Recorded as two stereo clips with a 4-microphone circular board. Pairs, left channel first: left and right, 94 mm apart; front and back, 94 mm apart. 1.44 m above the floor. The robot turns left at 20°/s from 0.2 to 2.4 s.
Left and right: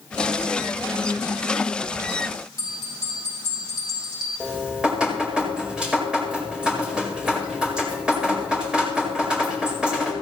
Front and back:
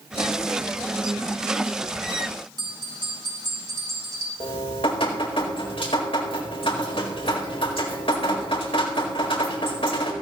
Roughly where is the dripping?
Ahead.